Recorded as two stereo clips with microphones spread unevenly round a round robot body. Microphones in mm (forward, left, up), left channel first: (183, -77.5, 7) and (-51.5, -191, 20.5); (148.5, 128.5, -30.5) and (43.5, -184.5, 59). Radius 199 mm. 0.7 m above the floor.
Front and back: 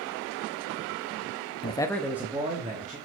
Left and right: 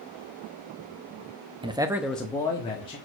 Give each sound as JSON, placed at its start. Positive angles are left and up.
{"t": 1.6, "sound": "a man speaking", "azimuth_deg": -20, "distance_m": 0.9}